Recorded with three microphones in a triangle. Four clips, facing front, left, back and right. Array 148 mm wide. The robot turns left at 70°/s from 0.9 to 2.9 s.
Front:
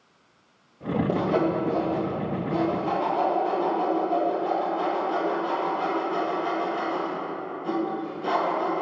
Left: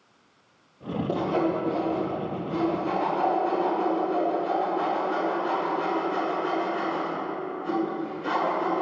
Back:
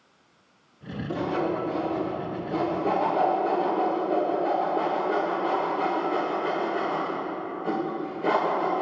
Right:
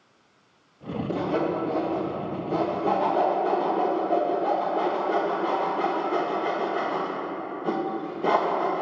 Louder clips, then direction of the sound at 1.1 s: Left 1 dB, front 2 dB; 20° left.